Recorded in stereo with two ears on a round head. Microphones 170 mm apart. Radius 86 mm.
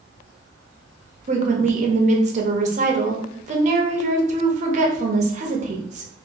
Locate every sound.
1.3 s a woman speaking: 40° right (ahead or behind), 0.7 m